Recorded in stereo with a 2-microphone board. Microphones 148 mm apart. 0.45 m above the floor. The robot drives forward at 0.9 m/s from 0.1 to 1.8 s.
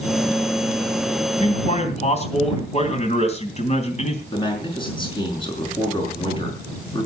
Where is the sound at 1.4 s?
45° left (ahead or behind), 3 m.